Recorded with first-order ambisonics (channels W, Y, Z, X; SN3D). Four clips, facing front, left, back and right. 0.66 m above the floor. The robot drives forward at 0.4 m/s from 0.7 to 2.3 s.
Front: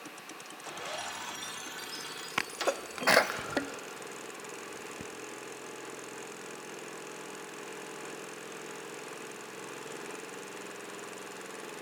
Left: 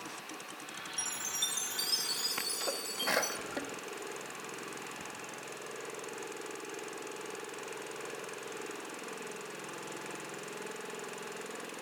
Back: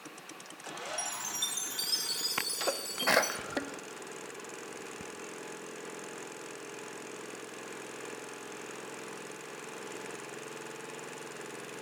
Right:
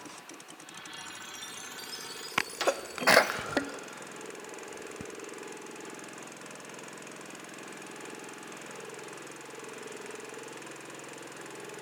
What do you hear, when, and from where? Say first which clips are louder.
1.0 s a chime: left 10 dB, back 3 dB; 130° left, 1.2 m; by 3.4 s 145° left, 1.5 m
2.4 s a sneeze: right 6 dB, front 1 dB; 75° right, 0.6 m